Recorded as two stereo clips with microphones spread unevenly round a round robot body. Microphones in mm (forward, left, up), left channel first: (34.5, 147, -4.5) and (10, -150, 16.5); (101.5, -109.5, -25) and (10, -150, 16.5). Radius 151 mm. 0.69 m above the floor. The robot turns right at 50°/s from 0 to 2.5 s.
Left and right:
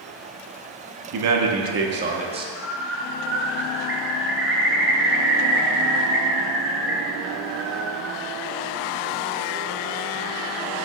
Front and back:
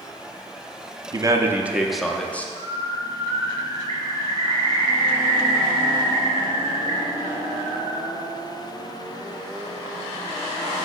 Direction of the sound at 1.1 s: 85° right.